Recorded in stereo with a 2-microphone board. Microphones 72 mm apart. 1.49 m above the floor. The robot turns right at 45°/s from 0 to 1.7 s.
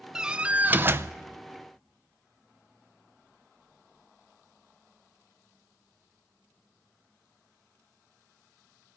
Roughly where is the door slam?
Behind.